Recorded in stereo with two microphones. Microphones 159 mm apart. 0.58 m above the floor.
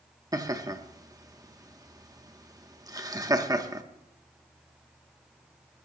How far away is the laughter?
About 0.9 m.